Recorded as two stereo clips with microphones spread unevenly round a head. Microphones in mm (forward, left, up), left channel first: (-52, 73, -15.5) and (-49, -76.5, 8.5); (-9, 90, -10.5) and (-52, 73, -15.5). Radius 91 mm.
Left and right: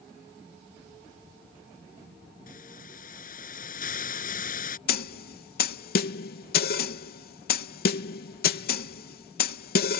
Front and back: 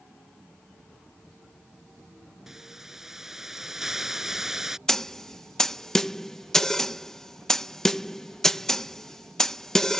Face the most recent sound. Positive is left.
turn(degrees=100)